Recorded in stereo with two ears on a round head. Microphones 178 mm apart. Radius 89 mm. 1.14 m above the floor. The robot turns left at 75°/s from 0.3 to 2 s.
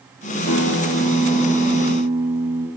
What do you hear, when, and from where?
0.5 s a guitar: 80° left, 1.9 m; by 2.7 s 35° right, 1.9 m